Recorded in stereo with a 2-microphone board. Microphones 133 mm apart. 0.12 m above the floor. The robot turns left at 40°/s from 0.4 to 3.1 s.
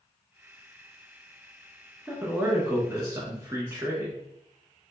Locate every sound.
2.1 s a man speaking: 10° right (ahead or behind), 1.1 m; by 4.1 s 25° right (ahead or behind), 1.1 m